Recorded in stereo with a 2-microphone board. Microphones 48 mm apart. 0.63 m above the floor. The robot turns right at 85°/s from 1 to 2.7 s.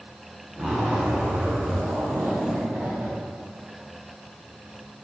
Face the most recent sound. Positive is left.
turn(degrees=-30)